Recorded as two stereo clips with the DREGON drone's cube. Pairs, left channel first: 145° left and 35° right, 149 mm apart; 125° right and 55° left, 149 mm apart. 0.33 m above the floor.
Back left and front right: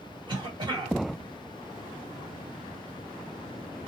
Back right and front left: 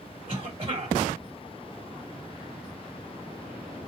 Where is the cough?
15° left, 1.7 m.